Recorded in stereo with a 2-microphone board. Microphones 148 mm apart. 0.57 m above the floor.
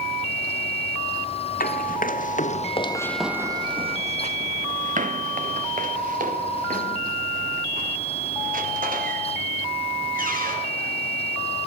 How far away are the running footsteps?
About 1.9 m.